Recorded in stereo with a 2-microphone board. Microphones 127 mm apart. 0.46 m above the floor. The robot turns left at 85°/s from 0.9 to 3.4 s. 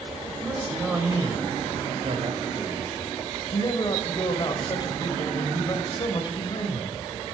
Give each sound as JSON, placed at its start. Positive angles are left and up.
{"t": 0.4, "sound": "a man speaking", "azimuth_deg": -10, "distance_m": 1.7}